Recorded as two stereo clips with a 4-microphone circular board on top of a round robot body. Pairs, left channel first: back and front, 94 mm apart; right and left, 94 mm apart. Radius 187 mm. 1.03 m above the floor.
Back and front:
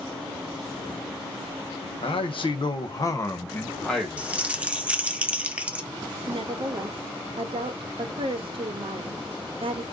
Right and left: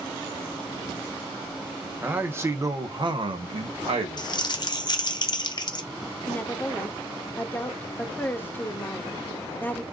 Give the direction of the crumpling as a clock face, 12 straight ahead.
2 o'clock.